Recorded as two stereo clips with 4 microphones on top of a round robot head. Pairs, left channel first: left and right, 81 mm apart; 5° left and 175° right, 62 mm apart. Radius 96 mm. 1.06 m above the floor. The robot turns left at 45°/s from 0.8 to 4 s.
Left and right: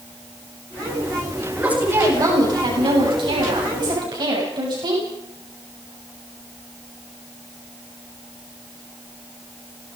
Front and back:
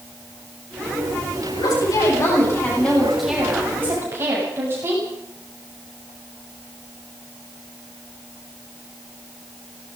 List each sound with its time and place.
1.6 s a woman speaking: 10° right, 9 m; by 5.0 s 120° right, 9 m